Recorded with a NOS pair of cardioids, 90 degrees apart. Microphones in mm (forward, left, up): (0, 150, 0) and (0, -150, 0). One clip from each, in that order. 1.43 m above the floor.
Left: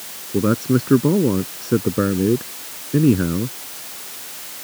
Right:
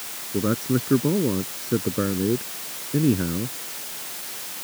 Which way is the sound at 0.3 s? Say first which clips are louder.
Left 5 dB; 40° left.